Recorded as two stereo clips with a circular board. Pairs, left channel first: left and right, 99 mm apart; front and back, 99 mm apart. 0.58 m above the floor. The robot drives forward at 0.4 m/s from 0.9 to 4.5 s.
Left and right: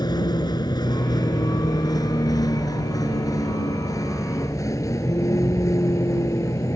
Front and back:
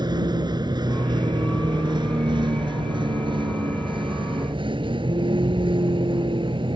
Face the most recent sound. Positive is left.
turn(degrees=145)